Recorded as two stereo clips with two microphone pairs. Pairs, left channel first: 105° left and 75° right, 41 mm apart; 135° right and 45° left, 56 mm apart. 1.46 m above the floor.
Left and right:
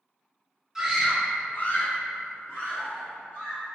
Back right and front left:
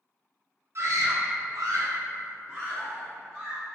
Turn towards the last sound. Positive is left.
turn(degrees=115)